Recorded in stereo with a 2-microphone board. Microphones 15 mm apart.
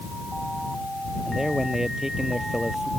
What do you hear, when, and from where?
1.2 s a man speaking: 30° right (ahead or behind)